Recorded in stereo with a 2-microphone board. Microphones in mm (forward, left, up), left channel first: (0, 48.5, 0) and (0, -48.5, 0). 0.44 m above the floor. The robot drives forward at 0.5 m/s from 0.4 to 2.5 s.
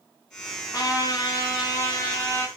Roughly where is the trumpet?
Left.